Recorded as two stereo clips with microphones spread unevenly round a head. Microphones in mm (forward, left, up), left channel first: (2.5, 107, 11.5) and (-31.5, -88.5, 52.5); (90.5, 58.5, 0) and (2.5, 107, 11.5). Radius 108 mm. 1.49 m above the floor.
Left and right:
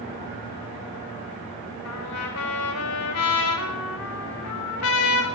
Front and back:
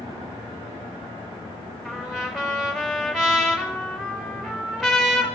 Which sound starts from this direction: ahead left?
A trumpet, at 1.9 s.